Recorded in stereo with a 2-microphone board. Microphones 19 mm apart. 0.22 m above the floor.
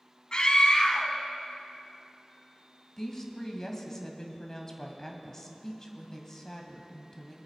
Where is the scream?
45° left (ahead or behind), 1.7 m.